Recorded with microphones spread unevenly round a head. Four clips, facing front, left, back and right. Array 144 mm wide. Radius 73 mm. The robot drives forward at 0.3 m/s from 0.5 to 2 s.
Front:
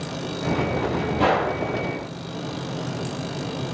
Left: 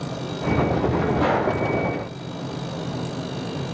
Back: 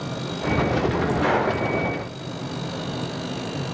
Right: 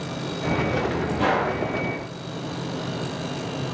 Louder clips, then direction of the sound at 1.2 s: Right 1 dB, front 3 dB; 5° right.